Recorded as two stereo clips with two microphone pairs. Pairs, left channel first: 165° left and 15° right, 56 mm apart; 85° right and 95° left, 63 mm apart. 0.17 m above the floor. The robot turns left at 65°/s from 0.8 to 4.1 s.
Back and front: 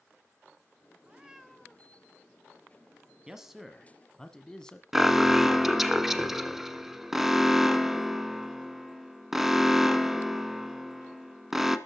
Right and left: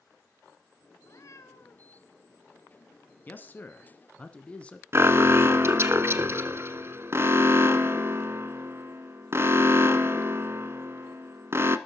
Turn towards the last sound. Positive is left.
turn(degrees=70)